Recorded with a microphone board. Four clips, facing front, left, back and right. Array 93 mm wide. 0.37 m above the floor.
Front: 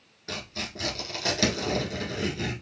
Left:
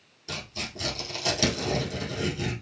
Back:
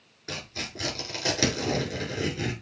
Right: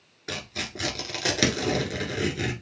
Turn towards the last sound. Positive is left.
turn(degrees=-95)